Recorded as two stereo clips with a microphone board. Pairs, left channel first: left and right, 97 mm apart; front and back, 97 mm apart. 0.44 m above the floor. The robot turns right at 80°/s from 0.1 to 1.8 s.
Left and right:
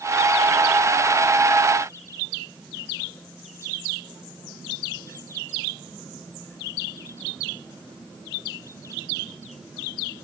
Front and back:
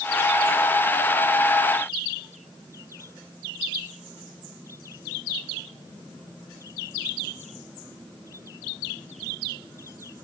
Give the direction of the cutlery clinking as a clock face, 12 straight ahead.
No cutlery clinking in this recording.